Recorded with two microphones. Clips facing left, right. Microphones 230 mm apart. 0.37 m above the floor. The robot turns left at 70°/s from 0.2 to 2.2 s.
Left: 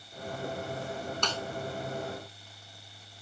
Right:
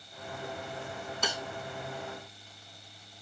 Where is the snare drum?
10° right (ahead or behind); by 1.4 s 20° right (ahead or behind).